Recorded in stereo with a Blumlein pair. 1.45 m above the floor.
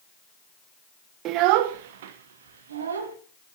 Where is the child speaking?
35° right, 0.6 m; by 3.2 s 65° right, 1.5 m.